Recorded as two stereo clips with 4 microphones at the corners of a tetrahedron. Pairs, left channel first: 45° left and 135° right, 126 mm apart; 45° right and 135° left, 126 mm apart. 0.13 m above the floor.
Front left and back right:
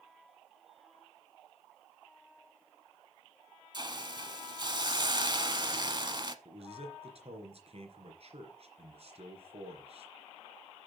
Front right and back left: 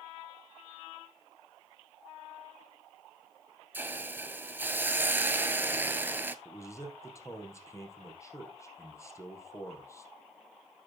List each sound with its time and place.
3.7 s a hiss: 160° right, 0.9 m
6.5 s a man speaking: 110° right, 3 m